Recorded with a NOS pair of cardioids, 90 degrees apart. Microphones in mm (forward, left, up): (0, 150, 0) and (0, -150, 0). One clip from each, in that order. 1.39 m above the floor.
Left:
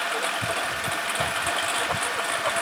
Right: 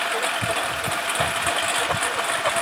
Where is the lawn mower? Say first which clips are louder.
Right 3 dB; 25° right.